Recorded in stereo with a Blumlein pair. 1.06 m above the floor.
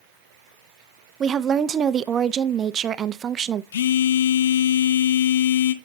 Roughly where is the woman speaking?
Ahead right.